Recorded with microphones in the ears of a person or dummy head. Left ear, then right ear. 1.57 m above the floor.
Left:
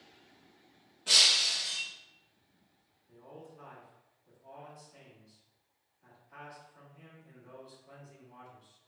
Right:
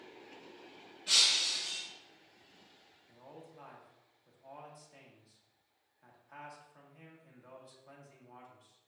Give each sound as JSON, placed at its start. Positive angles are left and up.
{"t": 1.1, "sound": "breaking glass", "side_deg": 5, "distance_m": 0.7}
{"t": 3.1, "sound": "a man speaking", "side_deg": -50, "distance_m": 1.1}